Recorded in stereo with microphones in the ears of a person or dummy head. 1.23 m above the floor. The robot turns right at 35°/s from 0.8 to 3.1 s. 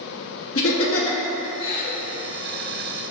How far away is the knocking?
I don't hear knocking.